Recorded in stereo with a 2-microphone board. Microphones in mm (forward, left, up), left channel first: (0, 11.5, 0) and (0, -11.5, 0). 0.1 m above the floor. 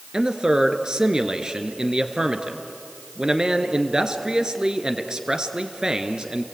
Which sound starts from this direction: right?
A man speaking, at 0.1 s.